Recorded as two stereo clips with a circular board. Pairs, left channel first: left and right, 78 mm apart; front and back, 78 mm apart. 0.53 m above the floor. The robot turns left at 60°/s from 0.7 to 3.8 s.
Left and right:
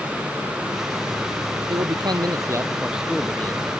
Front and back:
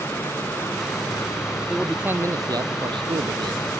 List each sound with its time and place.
1.7 s a man speaking: 95° right; by 3.7 s 145° left